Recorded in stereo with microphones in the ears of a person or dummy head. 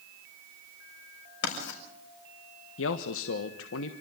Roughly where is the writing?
Left.